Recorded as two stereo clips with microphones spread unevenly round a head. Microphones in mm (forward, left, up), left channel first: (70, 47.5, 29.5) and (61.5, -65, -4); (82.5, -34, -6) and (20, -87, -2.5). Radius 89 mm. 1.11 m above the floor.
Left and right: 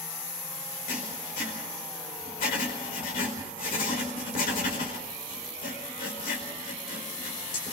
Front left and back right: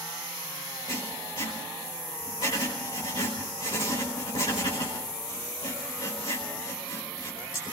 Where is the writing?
105° left, 5 m.